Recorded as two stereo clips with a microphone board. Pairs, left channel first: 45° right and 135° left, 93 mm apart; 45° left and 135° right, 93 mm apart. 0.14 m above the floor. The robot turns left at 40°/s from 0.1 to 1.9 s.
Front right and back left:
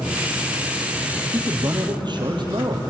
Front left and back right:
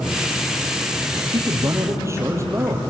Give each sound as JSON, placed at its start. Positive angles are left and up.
{"t": 1.3, "sound": "a man speaking", "azimuth_deg": -170, "distance_m": 3.5}